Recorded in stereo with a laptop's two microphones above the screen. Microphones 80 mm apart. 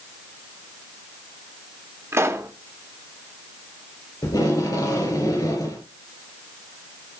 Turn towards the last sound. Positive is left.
turn(degrees=45)  # may be behind; listen again after turning